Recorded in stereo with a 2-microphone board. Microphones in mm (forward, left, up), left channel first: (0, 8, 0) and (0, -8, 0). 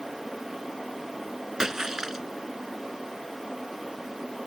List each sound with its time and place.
1.6 s a splash: 25° right (ahead or behind)